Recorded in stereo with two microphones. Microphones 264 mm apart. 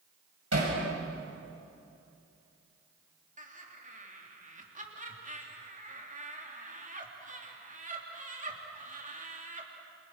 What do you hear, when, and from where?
0.5 s hammering: 80° right, 7 m
3.4 s laughter: 30° right (ahead or behind), 3.5 m